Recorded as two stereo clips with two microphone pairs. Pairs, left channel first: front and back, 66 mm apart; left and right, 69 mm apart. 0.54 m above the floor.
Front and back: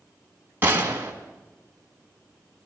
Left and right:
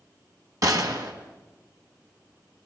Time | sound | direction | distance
0.6 | a gunshot | 120° right | 3 m